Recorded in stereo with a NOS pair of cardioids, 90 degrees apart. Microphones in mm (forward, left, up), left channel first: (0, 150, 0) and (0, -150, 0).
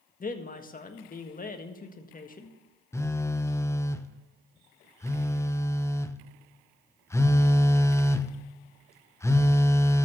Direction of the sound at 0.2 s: 30° left.